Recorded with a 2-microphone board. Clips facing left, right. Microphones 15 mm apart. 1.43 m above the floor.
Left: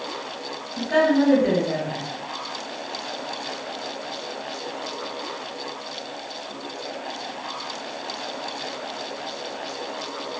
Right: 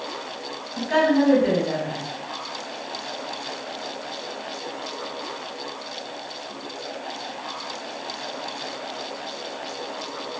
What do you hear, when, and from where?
0.8 s a woman speaking: 55° right (ahead or behind), 1.9 m